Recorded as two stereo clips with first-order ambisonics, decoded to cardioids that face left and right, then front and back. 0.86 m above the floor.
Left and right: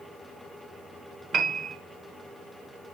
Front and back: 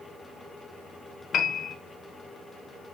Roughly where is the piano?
Ahead right.